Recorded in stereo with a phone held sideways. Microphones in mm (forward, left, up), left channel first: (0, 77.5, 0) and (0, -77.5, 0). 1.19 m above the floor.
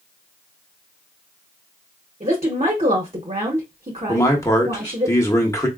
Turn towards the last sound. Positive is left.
turn(degrees=20)  # may be behind; listen again after turning